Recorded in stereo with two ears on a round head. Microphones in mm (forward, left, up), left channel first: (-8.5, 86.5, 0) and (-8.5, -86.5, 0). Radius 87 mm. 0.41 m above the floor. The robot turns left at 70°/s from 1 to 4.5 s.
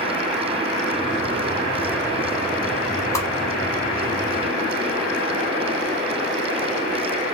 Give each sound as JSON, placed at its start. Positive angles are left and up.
{"t": 3.1, "sound": "a whoosh", "side_deg": 15, "distance_m": 1.3}